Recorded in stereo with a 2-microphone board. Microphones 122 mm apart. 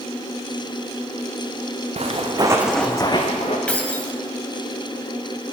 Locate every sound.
2.0 s footsteps: 60° right (ahead or behind), 1.2 m; by 3.6 s 55° left (ahead or behind), 1.3 m
3.7 s keys jangling: 10° left (ahead or behind), 0.7 m